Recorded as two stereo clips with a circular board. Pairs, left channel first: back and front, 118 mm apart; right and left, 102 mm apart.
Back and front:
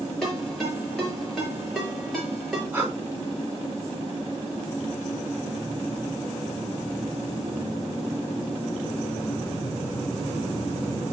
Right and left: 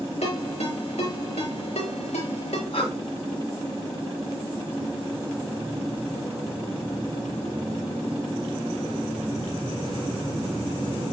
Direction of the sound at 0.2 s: 90° right.